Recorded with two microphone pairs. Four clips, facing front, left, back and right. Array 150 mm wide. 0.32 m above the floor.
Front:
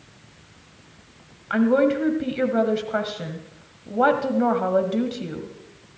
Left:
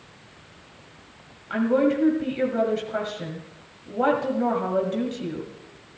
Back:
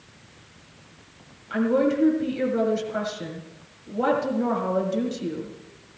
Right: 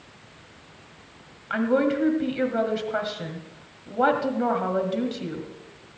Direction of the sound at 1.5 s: 25° right.